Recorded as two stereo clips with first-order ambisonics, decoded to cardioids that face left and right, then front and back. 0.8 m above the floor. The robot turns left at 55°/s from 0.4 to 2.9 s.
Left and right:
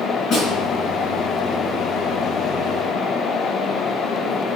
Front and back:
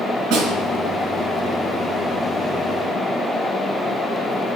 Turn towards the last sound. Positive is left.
turn(degrees=15)